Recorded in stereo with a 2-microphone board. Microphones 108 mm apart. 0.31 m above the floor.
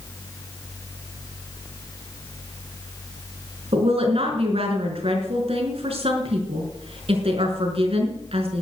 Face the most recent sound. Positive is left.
turn(degrees=-65)  # may be behind; listen again after turning